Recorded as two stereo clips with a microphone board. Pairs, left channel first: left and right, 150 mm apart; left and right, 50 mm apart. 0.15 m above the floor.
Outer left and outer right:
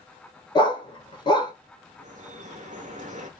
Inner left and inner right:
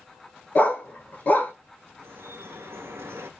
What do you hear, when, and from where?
0.6 s a dog barking: 30° left (ahead or behind), 0.7 m
2.0 s dripping: 55° right (ahead or behind), 0.6 m